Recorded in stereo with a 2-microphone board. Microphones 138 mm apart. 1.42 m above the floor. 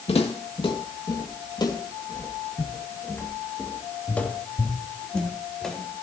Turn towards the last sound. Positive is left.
turn(degrees=0)  # may be behind; listen again after turning